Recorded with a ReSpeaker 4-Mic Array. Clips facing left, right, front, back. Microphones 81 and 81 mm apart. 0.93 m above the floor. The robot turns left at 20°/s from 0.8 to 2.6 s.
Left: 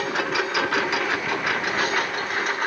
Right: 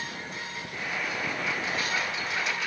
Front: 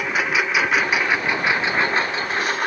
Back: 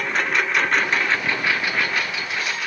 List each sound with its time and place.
0.0 s a lawn mower: 85° left; by 2.7 s 45° left